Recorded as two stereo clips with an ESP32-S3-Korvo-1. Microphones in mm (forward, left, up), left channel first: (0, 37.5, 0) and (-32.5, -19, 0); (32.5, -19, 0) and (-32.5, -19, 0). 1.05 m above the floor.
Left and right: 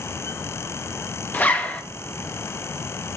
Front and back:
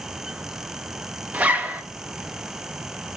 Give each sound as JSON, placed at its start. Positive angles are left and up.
{"t": 1.3, "sound": "a zipper", "azimuth_deg": 120, "distance_m": 0.8}